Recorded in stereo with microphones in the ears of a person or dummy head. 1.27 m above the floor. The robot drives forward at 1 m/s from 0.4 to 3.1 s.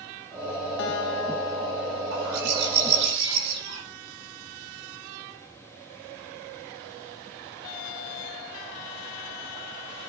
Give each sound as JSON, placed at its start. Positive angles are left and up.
{"t": 0.8, "sound": "a guitar", "side_deg": 65, "distance_m": 2.0}
{"t": 2.1, "sound": "a bird", "side_deg": -80, "distance_m": 7.5}